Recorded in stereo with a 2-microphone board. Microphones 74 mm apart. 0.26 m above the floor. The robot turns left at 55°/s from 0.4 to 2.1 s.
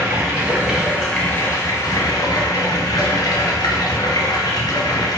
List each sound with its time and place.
0.0 s running water: 150° right, 0.9 m; by 5.2 s 115° left, 0.9 m